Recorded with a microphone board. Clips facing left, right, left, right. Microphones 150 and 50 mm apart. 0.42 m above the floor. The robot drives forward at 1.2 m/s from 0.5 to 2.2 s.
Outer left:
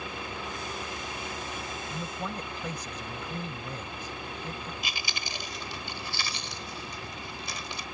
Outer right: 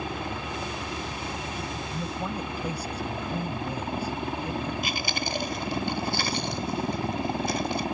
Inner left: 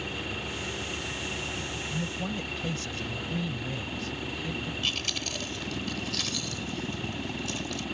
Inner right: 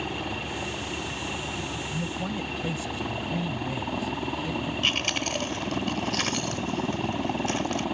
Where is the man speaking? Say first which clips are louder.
Outer right 3 dB, inner right 1 dB; 15° right (ahead or behind); by 4.7 s 10° right (ahead or behind).